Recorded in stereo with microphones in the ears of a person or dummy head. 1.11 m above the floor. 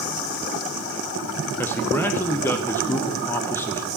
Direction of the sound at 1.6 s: 10° left (ahead or behind).